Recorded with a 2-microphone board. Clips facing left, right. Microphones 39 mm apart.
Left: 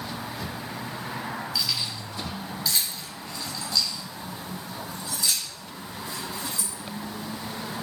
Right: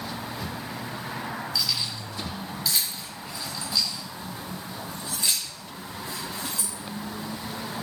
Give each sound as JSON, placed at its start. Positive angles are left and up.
{"t": 1.6, "sound": "keys jangling", "side_deg": 15, "distance_m": 5.0}